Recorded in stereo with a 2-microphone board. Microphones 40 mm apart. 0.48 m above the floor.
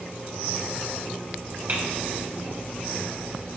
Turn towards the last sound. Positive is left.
turn(degrees=-55)  # may be behind; listen again after turning